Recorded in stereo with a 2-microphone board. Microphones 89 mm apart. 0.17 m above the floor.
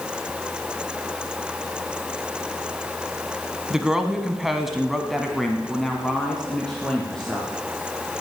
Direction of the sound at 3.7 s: 5° right (ahead or behind).